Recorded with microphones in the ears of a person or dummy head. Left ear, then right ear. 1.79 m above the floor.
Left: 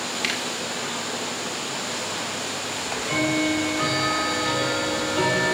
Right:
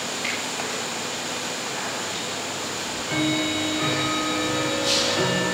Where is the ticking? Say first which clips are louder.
Left 2 dB; 80° left, 5 m.